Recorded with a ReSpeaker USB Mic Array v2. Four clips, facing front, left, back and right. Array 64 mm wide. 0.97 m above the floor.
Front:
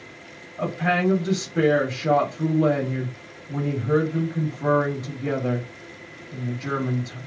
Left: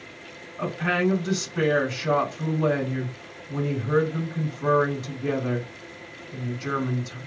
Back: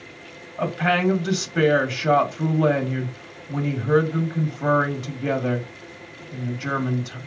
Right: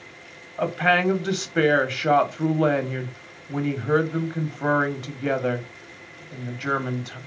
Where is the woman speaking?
115° right, 1.9 m.